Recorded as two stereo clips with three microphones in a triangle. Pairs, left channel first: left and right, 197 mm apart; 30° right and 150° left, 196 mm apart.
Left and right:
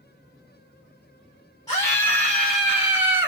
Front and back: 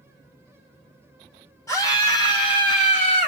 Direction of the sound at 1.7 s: 30° left.